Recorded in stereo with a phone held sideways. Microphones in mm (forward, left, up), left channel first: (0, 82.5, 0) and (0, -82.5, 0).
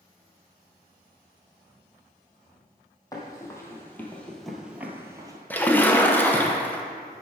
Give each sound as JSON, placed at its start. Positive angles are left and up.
{"t": 3.1, "sound": "running footsteps", "side_deg": 20, "distance_m": 1.8}
{"t": 5.5, "sound": "a splash", "side_deg": 10, "distance_m": 0.7}